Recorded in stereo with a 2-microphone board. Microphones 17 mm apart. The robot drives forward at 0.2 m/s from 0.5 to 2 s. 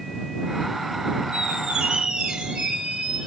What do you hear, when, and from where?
1.3 s a squeak: 70° right (ahead or behind), 1.0 m; by 3.3 s 65° right (ahead or behind), 1.1 m